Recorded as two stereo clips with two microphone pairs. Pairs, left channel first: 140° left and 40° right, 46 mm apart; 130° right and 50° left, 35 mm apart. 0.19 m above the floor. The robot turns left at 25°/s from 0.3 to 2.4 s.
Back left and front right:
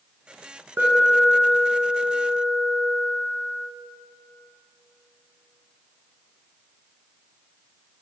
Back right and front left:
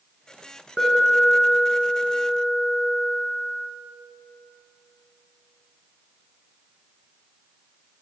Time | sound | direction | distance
0.8 | an alarm | 55° right | 1.1 m